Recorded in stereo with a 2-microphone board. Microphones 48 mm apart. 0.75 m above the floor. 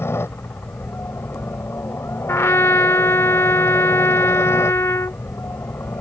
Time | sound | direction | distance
0.0 | a helicopter | 60° left (ahead or behind) | ?
2.3 | a trumpet | 70° left (ahead or behind) | ?